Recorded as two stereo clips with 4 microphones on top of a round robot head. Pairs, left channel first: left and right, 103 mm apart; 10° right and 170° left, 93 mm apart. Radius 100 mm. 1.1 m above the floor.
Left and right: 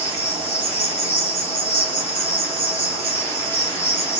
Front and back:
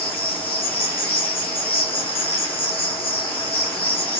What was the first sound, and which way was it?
An insect, 15° right.